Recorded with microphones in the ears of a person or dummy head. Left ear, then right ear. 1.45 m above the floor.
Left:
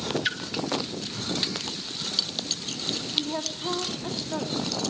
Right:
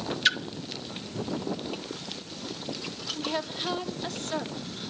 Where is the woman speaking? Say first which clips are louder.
Left 3 dB; 55° right (ahead or behind), 2.5 m.